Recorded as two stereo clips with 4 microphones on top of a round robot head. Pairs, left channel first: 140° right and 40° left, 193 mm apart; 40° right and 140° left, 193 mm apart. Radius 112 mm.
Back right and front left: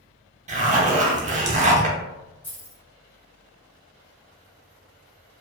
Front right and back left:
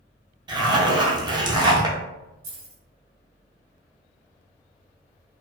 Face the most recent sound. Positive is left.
turn(degrees=140)